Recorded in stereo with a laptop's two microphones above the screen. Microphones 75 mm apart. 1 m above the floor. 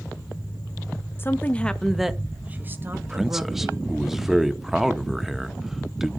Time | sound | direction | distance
1.2 | a woman speaking | 30° left (ahead or behind) | 1.0 m
2.9 | a man speaking | 5° right (ahead or behind) | 1.0 m